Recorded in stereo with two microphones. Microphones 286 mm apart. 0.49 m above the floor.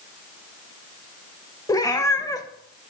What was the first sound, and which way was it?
A cat meowing, 10° left (ahead or behind).